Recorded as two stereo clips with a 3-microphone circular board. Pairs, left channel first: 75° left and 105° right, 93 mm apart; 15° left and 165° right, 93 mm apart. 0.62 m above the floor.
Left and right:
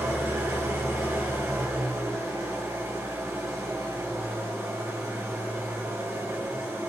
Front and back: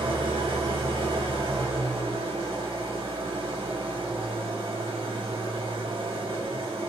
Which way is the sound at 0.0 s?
165° right.